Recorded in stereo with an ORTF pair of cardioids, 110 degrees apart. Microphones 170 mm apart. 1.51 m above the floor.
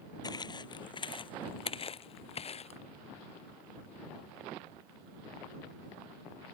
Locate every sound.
0.2 s footsteps: 25° left; by 2.8 s 40° left